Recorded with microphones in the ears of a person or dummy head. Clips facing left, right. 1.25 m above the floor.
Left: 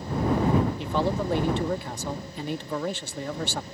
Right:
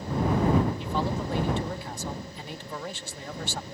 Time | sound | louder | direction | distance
0.8 | a man speaking | left 3 dB | 55° left (ahead or behind) | ?